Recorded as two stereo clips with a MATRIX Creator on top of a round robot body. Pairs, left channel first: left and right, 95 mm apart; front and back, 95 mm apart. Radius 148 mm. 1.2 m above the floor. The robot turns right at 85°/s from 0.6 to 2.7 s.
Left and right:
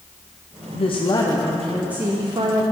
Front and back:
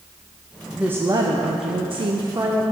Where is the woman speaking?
95° left, 0.8 m; by 2.6 s 105° right, 0.8 m.